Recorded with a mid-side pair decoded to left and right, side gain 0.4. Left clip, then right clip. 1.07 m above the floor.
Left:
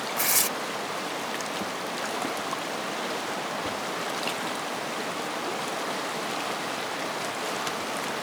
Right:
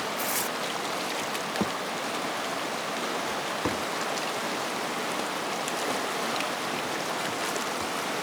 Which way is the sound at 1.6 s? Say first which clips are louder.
Right 2 dB; 60° right.